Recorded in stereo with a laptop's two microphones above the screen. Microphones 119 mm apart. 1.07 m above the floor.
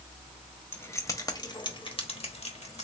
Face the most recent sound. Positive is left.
turn(degrees=70)  # may be behind; listen again after turning